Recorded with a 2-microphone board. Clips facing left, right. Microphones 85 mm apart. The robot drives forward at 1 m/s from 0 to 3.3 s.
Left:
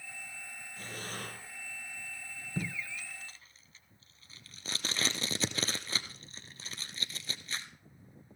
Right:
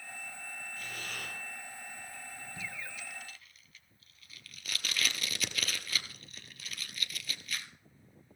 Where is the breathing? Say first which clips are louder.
Left 3 dB; 30° left (ahead or behind), 2.5 m; by 1.4 s 35° left (ahead or behind), 2 m.